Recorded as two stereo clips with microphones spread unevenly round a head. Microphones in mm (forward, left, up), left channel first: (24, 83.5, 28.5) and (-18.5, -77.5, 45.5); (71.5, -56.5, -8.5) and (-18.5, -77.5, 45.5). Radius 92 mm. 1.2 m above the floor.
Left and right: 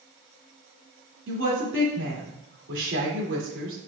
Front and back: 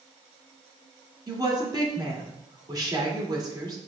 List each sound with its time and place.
1.3 s a woman speaking: 115° right, 2.5 m